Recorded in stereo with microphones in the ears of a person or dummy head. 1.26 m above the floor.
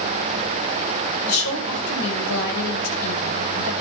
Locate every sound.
1.3 s a woman speaking: 90° left, 5.5 m